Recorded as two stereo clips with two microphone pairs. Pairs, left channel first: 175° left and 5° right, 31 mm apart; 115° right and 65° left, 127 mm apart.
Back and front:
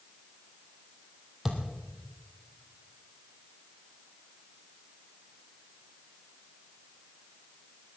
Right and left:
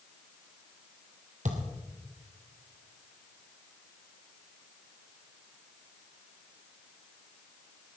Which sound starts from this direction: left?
A thud, at 1.4 s.